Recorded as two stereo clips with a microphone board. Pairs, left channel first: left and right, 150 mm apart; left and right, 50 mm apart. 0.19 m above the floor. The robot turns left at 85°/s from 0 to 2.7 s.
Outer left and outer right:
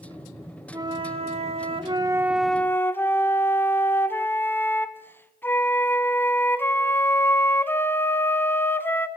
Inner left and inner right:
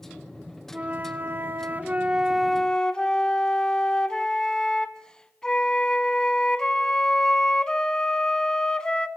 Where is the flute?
35° right, 0.7 m; by 9.1 s 160° left, 0.7 m.